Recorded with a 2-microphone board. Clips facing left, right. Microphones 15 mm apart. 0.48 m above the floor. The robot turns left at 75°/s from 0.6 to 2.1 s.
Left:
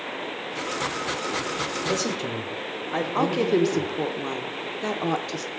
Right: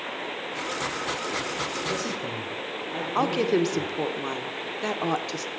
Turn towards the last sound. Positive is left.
turn(degrees=-5)  # may be behind; listen again after turning